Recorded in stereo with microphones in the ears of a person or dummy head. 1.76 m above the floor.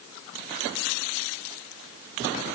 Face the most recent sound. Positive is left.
No sound to turn to.